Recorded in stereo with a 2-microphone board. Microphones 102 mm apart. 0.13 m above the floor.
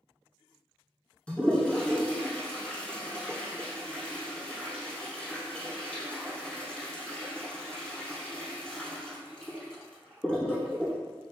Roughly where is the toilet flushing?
Centre.